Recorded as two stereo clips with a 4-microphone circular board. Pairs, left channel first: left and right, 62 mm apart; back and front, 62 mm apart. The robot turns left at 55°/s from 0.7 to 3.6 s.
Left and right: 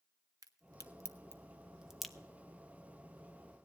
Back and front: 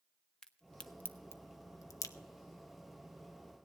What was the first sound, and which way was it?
A crack, 105° right.